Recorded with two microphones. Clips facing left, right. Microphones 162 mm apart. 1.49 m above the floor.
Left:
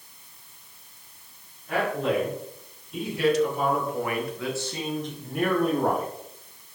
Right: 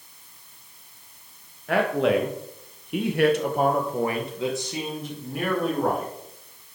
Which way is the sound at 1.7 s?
75° right (ahead or behind).